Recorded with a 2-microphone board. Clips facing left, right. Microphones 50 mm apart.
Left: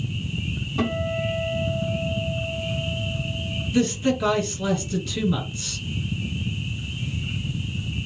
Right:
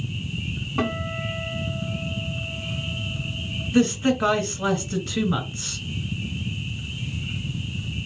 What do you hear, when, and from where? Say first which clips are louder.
0.8 s a guitar: left 2 dB; 55° right (ahead or behind), 3 m
3.7 s a man speaking: right 2 dB; 55° right (ahead or behind), 2.5 m